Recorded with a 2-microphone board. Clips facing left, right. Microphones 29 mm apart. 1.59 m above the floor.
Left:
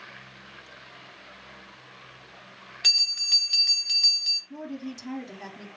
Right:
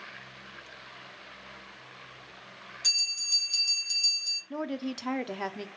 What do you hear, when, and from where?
2.8 s a bell: 50° left (ahead or behind), 0.8 m
4.5 s a woman speaking: 55° right (ahead or behind), 0.6 m